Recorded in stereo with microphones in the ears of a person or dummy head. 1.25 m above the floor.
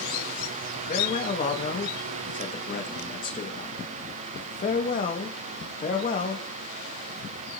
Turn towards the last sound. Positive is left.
turn(degrees=35)  # may be behind; listen again after turning